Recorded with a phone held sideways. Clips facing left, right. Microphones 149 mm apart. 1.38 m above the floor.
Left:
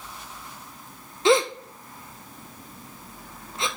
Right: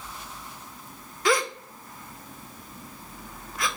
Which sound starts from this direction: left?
A gasp, at 1.2 s.